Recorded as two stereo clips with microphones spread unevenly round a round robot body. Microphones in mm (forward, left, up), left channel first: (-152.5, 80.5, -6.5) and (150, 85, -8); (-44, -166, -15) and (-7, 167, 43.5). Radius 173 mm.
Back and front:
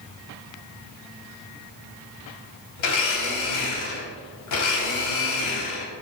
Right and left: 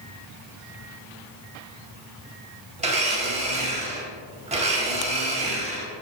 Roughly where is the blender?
Behind left.